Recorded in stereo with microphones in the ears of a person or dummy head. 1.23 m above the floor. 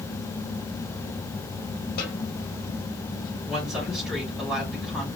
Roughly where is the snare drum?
Left.